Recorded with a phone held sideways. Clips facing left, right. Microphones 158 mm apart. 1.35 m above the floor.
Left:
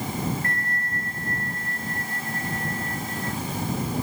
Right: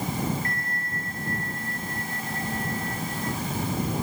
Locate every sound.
0.4 s a bell: 70° left (ahead or behind)